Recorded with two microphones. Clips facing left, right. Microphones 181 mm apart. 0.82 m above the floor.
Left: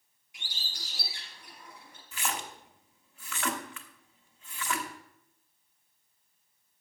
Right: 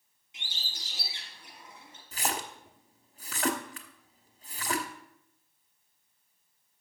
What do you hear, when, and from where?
0.3 s a bird: 20° right (ahead or behind), 4.5 m
2.1 s a splash: 35° right (ahead or behind), 1.0 m